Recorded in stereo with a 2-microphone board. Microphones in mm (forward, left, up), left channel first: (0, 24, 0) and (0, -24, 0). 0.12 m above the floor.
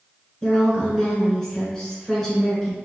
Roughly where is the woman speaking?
Centre.